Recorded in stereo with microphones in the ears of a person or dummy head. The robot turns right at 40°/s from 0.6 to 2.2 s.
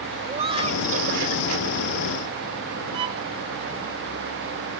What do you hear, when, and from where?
0.3 s laughter: 155° right; by 1.5 s 120° right
2.9 s a violin: 30° right (ahead or behind)